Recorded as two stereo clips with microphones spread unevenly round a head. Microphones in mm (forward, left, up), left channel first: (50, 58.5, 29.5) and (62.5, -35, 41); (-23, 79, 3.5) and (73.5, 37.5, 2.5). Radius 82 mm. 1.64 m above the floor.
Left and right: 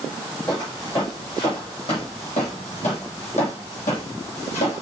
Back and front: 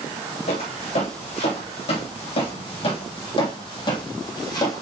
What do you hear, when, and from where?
0.5 s footsteps: 170° left, 4 m; by 4.8 s 115° left, 3 m